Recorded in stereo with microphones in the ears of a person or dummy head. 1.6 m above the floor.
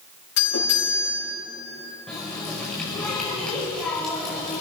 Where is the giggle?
I don't hear a giggle.